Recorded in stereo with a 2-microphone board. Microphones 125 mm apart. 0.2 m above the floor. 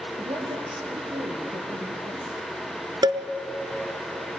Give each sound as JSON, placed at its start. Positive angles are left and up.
{"t": 0.2, "sound": "a woman speaking", "side_deg": -40, "distance_m": 4.0}
{"t": 3.0, "sound": "a cowbell", "side_deg": -40, "distance_m": 1.3}